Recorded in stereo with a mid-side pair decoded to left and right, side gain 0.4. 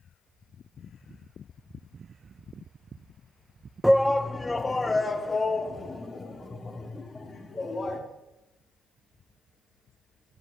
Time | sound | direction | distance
3.8 | a shout | 5° right | 0.5 m